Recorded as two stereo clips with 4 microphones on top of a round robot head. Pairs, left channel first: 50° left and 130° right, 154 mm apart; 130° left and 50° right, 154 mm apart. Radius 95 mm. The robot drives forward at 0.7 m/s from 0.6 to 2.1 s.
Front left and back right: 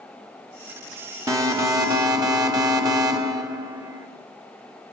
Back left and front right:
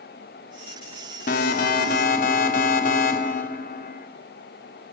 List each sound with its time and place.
1.3 s an alarm: 160° left, 2.5 m; by 4.1 s 165° left, 3 m